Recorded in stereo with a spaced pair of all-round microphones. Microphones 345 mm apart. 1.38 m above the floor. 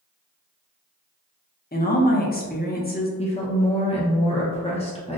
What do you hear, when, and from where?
1.7 s a woman speaking: 25° left (ahead or behind), 0.6 m
3.2 s a woman speaking: 20° left (ahead or behind), 0.6 m